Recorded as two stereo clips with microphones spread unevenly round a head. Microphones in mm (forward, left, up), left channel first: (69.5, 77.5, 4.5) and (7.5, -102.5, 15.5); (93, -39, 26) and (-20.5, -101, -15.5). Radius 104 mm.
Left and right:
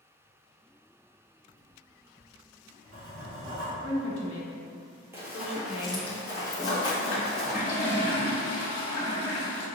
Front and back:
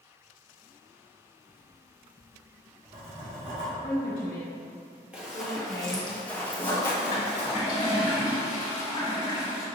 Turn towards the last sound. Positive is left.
turn(degrees=35)